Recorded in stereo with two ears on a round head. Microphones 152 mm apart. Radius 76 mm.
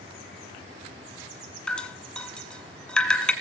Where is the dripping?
5° left (ahead or behind), 1.5 m.